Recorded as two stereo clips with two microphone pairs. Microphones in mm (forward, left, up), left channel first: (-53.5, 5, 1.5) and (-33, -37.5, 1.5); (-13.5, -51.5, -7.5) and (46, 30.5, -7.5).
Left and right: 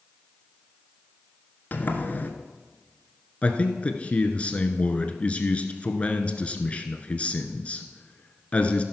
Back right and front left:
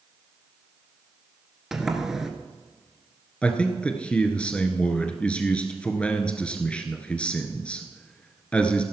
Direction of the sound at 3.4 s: 160° left.